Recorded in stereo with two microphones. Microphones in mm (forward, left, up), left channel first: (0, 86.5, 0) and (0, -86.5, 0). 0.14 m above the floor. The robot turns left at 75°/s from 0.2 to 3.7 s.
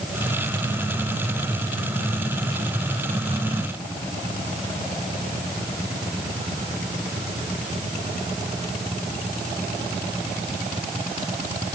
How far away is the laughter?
No laughter in this recording.